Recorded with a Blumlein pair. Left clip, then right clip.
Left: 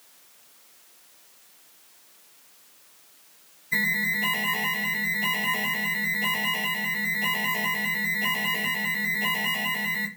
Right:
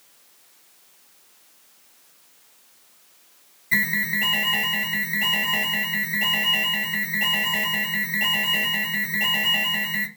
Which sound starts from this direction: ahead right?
An alarm, at 3.7 s.